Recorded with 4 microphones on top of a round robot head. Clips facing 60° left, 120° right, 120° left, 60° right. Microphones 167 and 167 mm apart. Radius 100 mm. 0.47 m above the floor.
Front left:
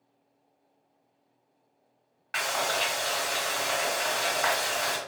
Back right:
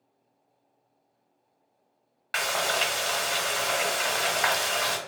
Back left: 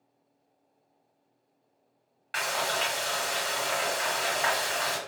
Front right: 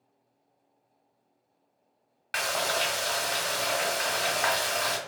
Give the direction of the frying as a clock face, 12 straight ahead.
3 o'clock.